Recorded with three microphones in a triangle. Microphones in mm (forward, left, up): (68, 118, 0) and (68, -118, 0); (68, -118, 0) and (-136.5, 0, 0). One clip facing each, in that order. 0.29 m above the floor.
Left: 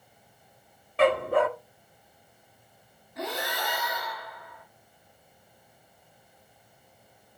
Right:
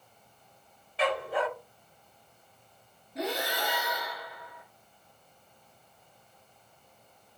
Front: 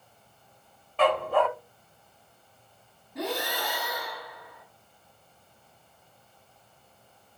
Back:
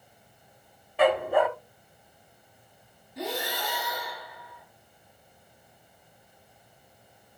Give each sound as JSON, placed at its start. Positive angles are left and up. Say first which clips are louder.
{"t": 1.0, "sound": "a dog barking", "louder": "left 7 dB, back 2 dB", "azimuth_deg": 75, "distance_m": 0.8}
{"t": 3.1, "sound": "breathing", "louder": "right 2 dB, front 1 dB", "azimuth_deg": -35, "distance_m": 3.5}